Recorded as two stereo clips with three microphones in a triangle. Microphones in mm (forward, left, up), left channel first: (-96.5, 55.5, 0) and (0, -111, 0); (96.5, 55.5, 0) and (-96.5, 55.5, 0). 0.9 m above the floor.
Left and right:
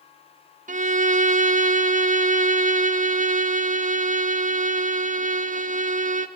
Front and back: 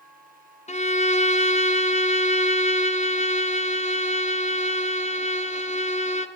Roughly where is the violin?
Ahead right.